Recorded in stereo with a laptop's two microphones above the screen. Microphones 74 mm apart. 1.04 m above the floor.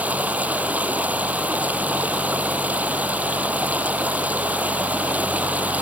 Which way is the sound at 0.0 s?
20° right (ahead or behind).